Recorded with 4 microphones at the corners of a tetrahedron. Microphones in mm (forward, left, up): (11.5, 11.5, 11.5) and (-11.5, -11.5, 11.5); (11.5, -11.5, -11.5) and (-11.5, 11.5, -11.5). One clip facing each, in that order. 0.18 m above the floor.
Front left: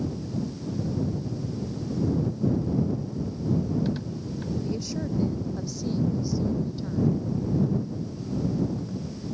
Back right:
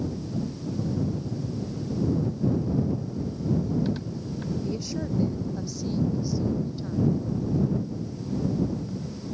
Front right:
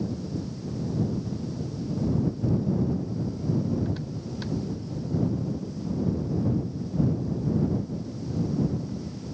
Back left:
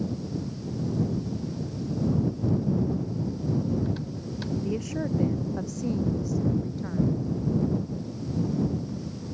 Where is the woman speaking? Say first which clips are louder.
Even, back left 4 dB; 140° left; by 7.2 s 135° left.